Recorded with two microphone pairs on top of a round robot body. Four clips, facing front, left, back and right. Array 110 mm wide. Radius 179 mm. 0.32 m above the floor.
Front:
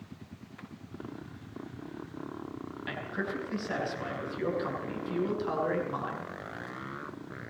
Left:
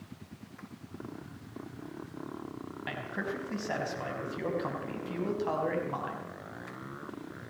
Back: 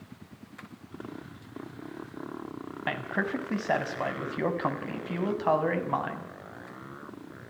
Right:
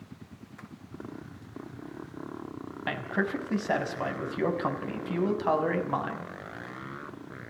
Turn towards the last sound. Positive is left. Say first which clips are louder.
# right 7 dB, back 5 dB
turn(degrees=-150)